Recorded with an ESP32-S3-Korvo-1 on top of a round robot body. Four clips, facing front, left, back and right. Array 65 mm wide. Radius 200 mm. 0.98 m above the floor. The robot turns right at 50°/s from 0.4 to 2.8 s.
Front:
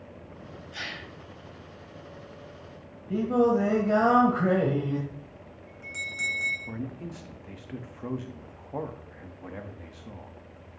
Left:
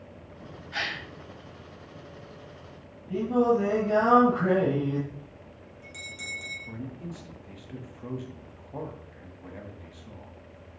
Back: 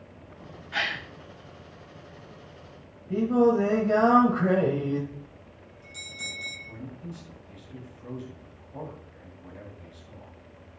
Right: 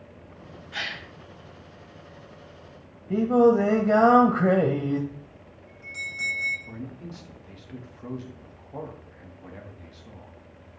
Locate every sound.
0.7 s a gasp: 170° left, 1.6 m; by 1.1 s 170° right, 1.6 m
3.1 s singing: 80° right, 0.9 m
5.1 s a bell: 10° right, 3.5 m
6.7 s a man speaking: 5° right, 1.6 m